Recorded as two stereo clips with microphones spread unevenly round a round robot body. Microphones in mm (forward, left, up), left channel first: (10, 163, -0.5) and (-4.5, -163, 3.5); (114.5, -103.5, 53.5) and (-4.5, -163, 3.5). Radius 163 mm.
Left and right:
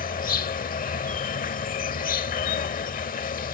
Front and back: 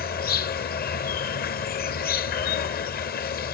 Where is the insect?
25° left.